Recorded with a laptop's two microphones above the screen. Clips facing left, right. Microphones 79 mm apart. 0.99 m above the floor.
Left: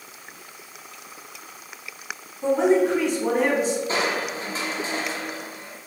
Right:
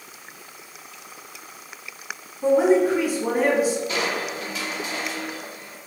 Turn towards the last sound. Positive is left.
turn(degrees=35)  # may be behind; listen again after turning